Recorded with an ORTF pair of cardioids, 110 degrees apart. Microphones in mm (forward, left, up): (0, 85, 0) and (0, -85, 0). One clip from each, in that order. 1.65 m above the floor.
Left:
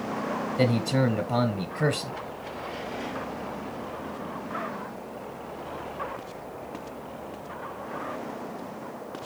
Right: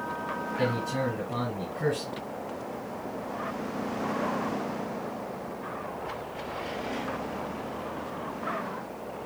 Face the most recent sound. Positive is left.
turn(degrees=50)